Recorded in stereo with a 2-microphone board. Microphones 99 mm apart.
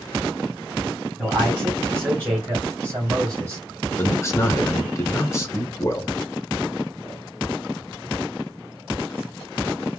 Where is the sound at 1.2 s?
5° right (ahead or behind), 2.5 m; by 3.6 s 35° right (ahead or behind), 2.5 m.